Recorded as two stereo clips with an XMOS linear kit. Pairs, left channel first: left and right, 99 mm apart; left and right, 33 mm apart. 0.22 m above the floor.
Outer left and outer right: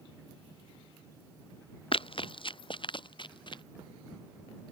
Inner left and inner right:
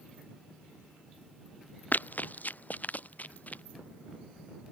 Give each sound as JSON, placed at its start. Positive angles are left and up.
{"t": 1.9, "sound": "running footsteps", "side_deg": 60}